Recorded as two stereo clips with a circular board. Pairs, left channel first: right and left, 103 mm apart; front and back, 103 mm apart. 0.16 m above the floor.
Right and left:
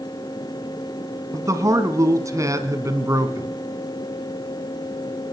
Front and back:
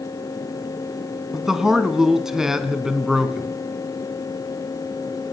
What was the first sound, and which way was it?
A man speaking, 100° left.